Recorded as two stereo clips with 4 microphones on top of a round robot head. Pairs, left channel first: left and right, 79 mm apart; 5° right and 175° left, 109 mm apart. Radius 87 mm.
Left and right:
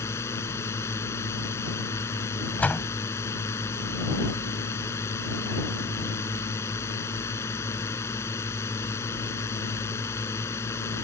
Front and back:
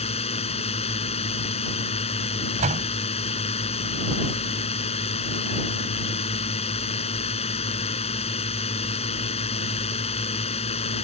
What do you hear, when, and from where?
0.0 s a drone: 25° left
2.6 s a door slam: 160° left